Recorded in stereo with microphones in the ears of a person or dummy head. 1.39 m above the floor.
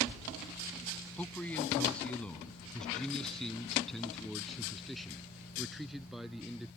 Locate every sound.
1.2 s a man speaking: 10° left (ahead or behind); by 6.7 s centre (ahead or behind)